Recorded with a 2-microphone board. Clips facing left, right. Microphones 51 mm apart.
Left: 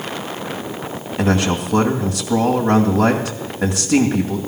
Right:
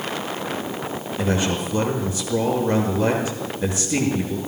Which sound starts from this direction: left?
A man speaking, at 1.2 s.